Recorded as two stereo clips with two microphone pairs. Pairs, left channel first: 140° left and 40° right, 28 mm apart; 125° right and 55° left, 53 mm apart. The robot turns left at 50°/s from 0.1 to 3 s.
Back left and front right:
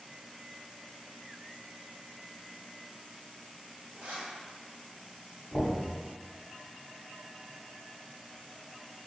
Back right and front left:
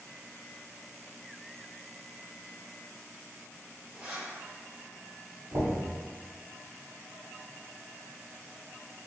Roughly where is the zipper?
Ahead.